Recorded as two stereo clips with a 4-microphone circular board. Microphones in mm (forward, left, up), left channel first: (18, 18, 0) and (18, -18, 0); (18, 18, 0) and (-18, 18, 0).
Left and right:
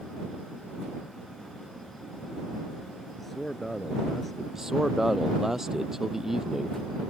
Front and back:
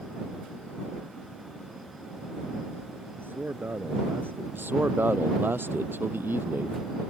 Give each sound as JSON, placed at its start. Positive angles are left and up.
{"t": 3.2, "sound": "a man speaking", "azimuth_deg": 175}
{"t": 4.5, "sound": "a man speaking", "azimuth_deg": -170}